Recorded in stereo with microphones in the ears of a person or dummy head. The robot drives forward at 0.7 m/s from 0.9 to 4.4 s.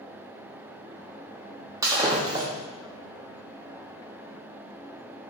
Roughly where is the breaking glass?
Right.